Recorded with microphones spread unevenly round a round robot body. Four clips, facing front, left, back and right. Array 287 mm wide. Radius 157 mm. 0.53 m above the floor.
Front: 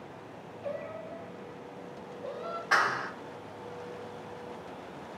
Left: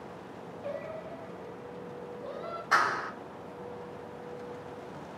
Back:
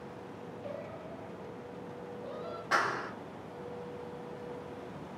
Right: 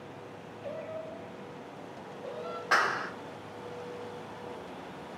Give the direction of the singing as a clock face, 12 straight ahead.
9 o'clock.